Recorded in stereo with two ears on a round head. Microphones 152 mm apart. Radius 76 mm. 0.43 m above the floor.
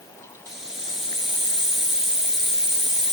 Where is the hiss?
5° right (ahead or behind), 4.5 m.